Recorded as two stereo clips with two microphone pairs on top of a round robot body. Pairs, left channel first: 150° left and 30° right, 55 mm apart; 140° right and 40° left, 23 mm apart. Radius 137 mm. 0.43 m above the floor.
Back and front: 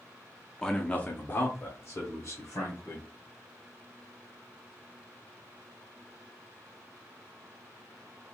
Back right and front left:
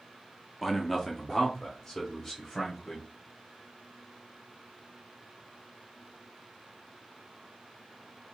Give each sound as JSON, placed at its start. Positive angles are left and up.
{"t": 0.6, "sound": "a man speaking", "azimuth_deg": 75, "distance_m": 0.9}